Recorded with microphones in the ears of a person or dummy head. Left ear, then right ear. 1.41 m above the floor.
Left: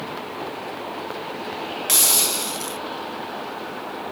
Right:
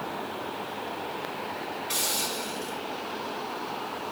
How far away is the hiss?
About 0.7 m.